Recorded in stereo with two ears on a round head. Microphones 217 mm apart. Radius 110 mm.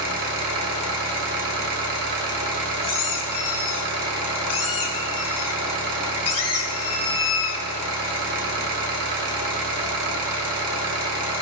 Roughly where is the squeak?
Left.